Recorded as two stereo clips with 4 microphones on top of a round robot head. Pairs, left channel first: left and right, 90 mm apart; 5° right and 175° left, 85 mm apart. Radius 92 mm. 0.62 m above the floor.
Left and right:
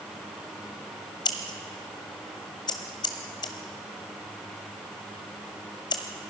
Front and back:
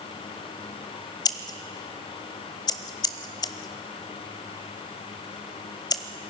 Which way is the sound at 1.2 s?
35° left.